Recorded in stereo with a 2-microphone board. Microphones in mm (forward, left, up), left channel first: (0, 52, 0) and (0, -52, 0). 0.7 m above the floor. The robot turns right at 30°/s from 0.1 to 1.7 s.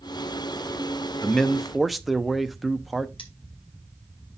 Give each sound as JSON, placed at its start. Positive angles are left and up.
{"t": 1.2, "sound": "a man speaking", "side_deg": 10, "distance_m": 0.6}
{"t": 3.2, "sound": "cutlery clinking", "side_deg": 55, "distance_m": 1.3}